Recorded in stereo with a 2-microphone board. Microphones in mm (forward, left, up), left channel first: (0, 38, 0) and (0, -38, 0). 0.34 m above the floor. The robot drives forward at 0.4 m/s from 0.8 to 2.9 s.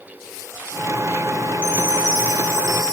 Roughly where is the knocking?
I don't hear knocking.